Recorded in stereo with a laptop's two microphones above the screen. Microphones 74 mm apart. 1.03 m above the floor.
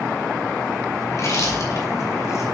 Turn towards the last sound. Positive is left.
turn(degrees=50)  # may be behind; listen again after turning